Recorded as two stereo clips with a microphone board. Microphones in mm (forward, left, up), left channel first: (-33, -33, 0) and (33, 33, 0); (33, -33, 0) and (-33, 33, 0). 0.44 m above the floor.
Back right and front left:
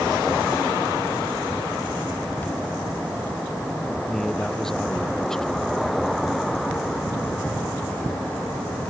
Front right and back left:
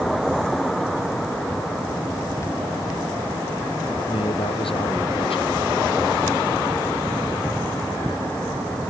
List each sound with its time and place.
4.1 s a man speaking: 50° right